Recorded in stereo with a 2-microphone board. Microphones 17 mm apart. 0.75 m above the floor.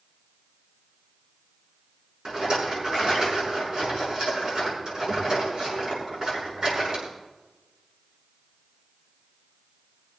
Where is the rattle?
40° right (ahead or behind), 7 m.